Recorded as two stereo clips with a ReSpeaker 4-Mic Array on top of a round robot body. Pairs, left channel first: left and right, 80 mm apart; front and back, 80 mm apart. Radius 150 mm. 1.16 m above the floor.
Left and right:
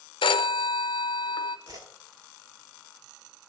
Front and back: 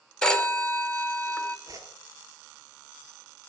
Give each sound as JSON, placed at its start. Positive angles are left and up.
{"t": 0.2, "sound": "a phone ringing", "azimuth_deg": 80, "distance_m": 0.8}
{"t": 1.7, "sound": "a whoosh", "azimuth_deg": -135, "distance_m": 1.0}